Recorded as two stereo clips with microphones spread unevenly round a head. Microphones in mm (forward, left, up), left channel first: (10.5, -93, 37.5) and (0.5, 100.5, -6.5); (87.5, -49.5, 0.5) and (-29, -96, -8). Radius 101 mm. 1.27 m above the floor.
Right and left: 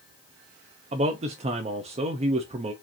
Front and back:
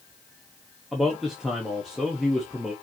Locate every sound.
0.9 s a man speaking: 115° left, 0.6 m